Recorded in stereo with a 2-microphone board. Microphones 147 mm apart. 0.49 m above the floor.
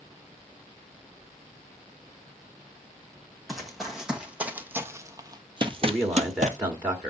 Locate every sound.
3.5 s running footsteps: centre (ahead or behind), 1.5 m; by 6.6 s 55° right (ahead or behind), 0.7 m
5.8 s a man speaking: 15° right (ahead or behind), 1.2 m